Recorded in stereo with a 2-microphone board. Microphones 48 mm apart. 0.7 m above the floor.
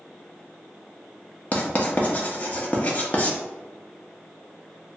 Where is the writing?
35° left (ahead or behind), 0.5 m.